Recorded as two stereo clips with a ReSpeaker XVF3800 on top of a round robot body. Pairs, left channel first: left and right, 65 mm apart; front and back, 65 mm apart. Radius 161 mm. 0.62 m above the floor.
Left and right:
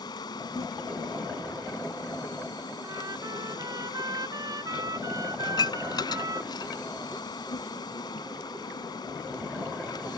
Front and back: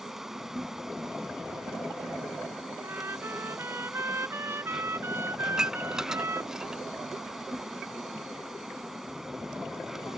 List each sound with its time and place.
0.0 s an insect: 95° left
2.8 s a trumpet: 125° right
5.5 s dishes clattering: 100° left